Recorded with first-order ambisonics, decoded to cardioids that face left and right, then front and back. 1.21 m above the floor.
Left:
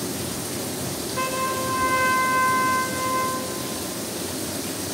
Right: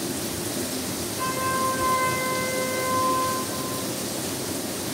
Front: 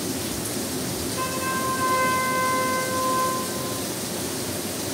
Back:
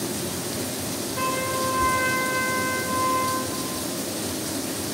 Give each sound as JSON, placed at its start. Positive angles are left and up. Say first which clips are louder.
{"t": 1.2, "sound": "a trumpet", "louder": "even, back 2 dB", "azimuth_deg": 105, "distance_m": 1.0}